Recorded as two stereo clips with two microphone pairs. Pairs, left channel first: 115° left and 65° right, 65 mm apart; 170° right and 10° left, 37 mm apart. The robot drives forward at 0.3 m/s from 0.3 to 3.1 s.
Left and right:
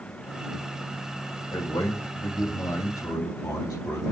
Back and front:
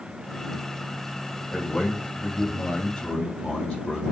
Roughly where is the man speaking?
Behind left.